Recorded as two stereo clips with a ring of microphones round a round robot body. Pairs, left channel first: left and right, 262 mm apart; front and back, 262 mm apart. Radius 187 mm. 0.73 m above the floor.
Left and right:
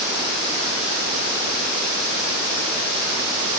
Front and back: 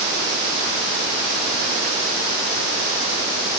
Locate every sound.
Only background noise.